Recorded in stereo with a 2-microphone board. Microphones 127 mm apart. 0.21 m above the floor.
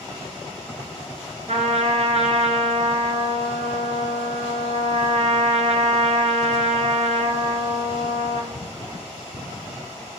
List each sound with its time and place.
1.5 s a trumpet: 60° right (ahead or behind), 0.7 m